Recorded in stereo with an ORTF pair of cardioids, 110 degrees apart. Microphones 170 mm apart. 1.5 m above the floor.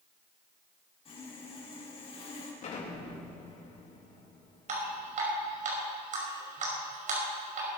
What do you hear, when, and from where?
1.1 s sawing: 35° left, 5.5 m
2.6 s an explosion: 45° left, 3 m
4.7 s dripping: 50° right, 5.5 m